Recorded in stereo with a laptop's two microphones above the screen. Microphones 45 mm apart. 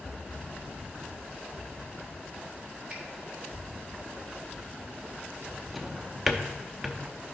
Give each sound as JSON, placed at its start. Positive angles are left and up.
{"t": 2.9, "sound": "a finger snap", "side_deg": -15, "distance_m": 3.0}
{"t": 5.7, "sound": "a drawer", "side_deg": 0, "distance_m": 0.9}